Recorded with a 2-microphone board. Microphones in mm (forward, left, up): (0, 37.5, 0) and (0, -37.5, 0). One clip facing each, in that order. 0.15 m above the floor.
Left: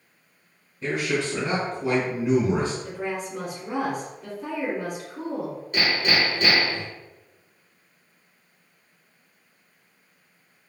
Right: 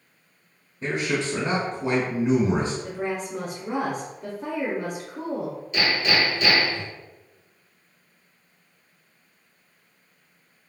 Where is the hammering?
45° left (ahead or behind), 2.0 m.